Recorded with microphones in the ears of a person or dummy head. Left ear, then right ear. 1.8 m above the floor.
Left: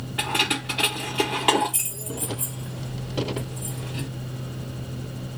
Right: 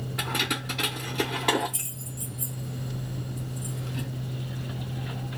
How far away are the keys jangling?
About 0.6 m.